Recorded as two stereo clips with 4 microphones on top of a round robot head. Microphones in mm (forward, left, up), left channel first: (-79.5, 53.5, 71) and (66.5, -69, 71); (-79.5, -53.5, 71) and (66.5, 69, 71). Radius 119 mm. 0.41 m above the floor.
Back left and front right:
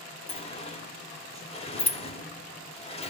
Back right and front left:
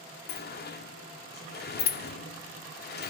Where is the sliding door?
165° right, 0.9 m.